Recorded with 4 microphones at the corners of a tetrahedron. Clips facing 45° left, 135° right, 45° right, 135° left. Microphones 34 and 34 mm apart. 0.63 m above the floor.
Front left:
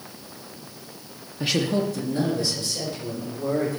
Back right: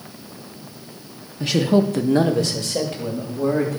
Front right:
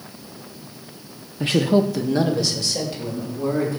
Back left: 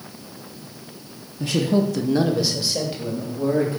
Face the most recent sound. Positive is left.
turn(degrees=-150)